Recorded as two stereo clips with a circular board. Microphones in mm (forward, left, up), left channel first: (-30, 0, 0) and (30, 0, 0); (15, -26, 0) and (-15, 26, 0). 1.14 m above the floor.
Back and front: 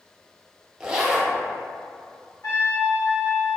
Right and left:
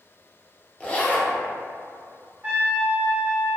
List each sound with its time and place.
0.8 s a zipper: 60° right, 0.6 m
2.4 s a trumpet: 175° left, 1.9 m